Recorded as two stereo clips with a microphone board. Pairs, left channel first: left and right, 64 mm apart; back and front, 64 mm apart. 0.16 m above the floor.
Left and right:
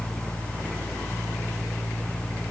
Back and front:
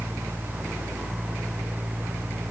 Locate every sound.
Only background noise.